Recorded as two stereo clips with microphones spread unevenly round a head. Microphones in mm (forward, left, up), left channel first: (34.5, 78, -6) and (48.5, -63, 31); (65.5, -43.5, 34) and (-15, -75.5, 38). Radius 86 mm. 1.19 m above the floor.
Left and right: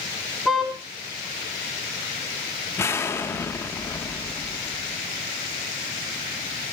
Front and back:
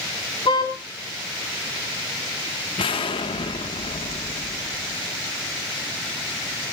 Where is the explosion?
25° left, 1.5 m.